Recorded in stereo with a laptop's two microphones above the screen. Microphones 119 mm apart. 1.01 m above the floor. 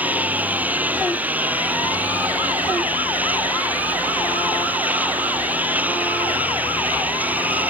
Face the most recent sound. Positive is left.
turn(degrees=-15)  # may be behind; listen again after turning